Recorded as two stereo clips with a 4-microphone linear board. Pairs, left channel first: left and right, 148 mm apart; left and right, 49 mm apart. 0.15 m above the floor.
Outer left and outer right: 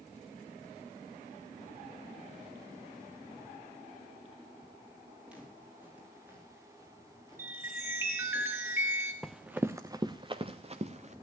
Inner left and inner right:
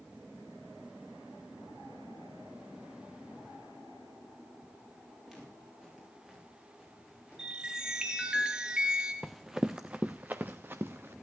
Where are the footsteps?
10° right (ahead or behind), 7.5 m; by 8.4 s 30° right (ahead or behind), 9 m.